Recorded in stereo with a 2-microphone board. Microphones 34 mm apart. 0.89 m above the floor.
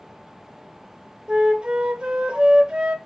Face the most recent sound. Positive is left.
turn(degrees=-30)  # may be behind; listen again after turning